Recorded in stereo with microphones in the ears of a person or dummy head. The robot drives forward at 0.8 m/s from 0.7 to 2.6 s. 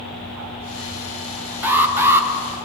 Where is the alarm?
10° right (ahead or behind), 1.9 m.